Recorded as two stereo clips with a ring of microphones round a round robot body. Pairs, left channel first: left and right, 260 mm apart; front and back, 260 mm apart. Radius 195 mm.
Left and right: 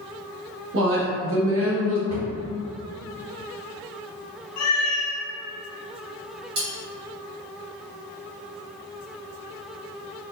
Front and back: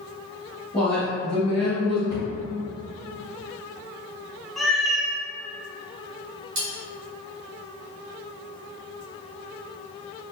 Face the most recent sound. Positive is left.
turn(degrees=-145)